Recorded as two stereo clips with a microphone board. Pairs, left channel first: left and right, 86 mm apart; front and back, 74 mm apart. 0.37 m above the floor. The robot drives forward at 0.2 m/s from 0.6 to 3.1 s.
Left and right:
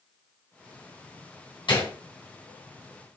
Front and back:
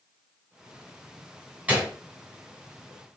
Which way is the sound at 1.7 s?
110° left.